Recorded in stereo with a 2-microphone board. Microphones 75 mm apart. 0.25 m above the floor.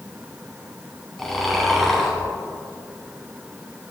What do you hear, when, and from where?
1.2 s snoring: 5° left (ahead or behind), 2 m